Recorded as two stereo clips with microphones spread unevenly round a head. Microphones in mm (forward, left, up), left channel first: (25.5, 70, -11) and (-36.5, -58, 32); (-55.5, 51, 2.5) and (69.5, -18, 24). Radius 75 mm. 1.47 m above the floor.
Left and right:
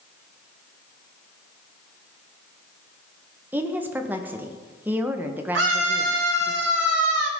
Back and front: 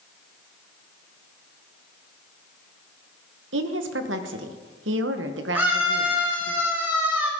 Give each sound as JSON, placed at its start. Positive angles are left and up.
{"t": 3.5, "sound": "a woman speaking", "azimuth_deg": -40, "distance_m": 1.2}
{"t": 5.5, "sound": "a scream", "azimuth_deg": -110, "distance_m": 4.5}